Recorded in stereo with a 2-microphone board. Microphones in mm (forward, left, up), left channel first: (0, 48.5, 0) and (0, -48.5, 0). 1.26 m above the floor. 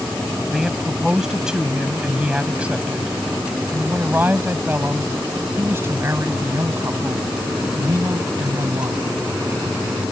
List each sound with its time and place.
0.5 s a man speaking: 5° right (ahead or behind); by 9.0 s 40° right (ahead or behind)